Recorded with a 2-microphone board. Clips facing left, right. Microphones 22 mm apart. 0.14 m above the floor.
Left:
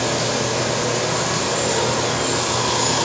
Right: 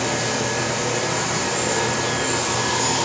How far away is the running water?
About 1.0 m.